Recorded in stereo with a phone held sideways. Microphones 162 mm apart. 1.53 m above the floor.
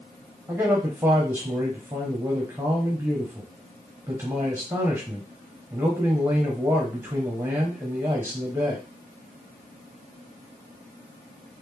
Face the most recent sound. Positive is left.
turn(degrees=-15)  # may be behind; listen again after turning